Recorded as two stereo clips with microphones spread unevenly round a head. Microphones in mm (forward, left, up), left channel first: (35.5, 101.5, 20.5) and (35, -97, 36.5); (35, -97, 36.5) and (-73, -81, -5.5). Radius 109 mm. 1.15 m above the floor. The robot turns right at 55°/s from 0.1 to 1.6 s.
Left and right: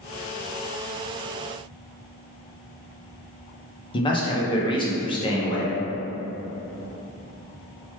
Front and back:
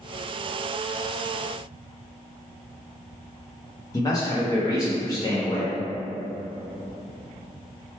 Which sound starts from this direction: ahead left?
A man speaking, at 3.9 s.